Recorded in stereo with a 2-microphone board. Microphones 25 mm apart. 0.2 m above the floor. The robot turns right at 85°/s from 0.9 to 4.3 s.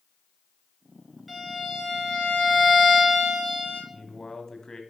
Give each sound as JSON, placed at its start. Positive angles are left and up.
{"t": 1.3, "sound": "a violin", "azimuth_deg": -5, "distance_m": 3.5}
{"t": 3.9, "sound": "a man speaking", "side_deg": 25, "distance_m": 1.0}